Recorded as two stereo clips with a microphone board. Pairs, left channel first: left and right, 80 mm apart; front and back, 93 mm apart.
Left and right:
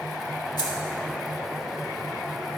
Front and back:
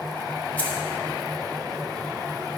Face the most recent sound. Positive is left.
turn(degrees=70)